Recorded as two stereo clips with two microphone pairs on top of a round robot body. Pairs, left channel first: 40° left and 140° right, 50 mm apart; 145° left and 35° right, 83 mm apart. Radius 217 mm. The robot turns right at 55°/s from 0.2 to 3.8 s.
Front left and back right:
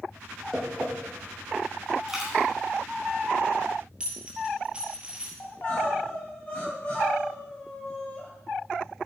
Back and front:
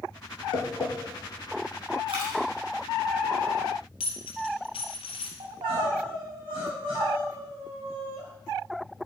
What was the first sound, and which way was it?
Tapping, 140° left.